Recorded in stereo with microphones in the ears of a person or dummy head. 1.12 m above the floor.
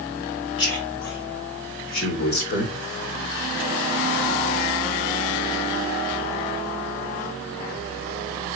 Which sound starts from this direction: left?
A man speaking, at 0.6 s.